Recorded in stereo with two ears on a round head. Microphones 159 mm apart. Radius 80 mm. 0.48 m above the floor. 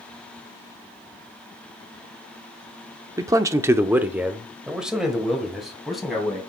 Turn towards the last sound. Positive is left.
turn(degrees=0)  # may be behind; listen again after turning